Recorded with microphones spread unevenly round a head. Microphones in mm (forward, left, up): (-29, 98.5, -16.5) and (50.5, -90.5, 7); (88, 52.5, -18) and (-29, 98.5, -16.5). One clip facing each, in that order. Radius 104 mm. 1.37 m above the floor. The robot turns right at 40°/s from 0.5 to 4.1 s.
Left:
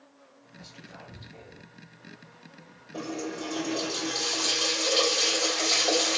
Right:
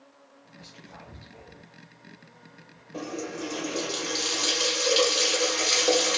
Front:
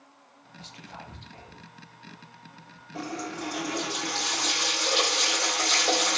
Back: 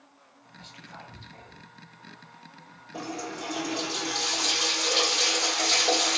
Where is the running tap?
150° right, 1.2 m; by 6.2 s 100° right, 1.2 m.